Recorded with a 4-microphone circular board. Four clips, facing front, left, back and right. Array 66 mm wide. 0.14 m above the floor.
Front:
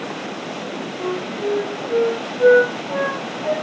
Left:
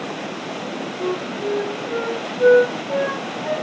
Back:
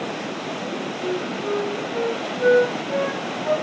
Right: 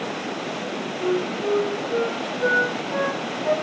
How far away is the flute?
About 6 m.